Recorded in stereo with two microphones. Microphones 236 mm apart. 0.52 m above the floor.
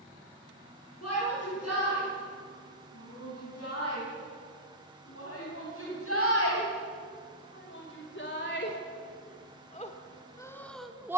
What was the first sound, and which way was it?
A shout, 70° left (ahead or behind).